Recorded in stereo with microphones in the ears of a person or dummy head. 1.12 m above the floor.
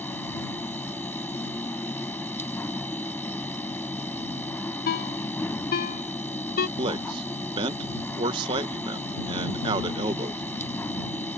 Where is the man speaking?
25° right (ahead or behind).